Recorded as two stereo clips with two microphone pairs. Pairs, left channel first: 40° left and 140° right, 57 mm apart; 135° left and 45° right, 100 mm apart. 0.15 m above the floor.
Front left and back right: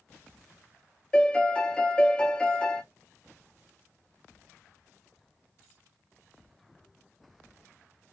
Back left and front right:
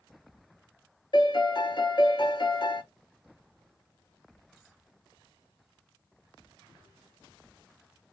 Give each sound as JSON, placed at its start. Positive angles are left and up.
{"t": 1.1, "sound": "a piano", "azimuth_deg": 115, "distance_m": 0.7}